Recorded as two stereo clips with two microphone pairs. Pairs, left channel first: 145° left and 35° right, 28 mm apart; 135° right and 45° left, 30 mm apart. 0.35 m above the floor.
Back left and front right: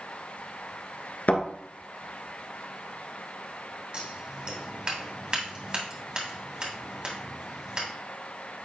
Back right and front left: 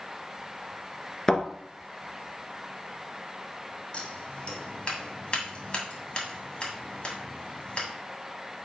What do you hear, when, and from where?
1.3 s a thud: 155° left, 1.6 m
3.9 s scissors: 85° right, 2.5 m